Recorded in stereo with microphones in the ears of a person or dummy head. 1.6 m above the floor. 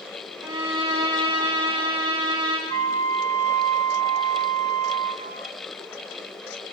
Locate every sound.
0.4 s a violin: 20° right (ahead or behind), 3 m
2.7 s a flute: 45° right (ahead or behind), 1.0 m